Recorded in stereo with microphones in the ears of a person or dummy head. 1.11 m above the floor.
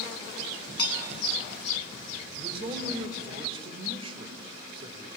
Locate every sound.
0.8 s dishes clattering: 30° left (ahead or behind), 6.5 m
2.4 s a man speaking: 35° right (ahead or behind), 3.5 m